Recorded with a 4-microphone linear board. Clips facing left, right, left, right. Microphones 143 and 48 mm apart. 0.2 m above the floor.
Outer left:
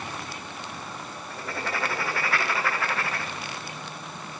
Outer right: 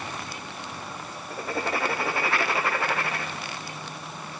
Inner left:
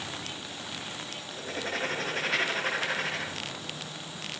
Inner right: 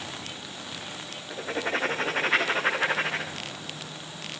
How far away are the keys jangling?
No keys jangling in this recording.